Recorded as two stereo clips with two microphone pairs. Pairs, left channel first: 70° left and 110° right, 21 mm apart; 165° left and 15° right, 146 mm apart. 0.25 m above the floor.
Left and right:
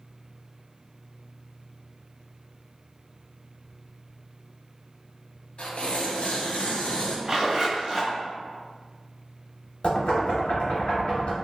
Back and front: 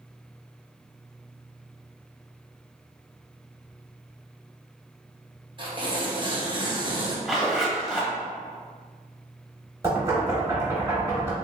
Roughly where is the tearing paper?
Ahead left.